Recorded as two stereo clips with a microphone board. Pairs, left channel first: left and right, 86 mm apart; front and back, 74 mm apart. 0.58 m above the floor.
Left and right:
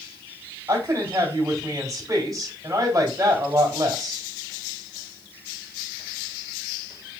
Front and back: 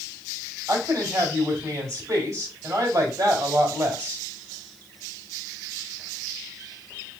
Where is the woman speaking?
140° right, 2.5 m.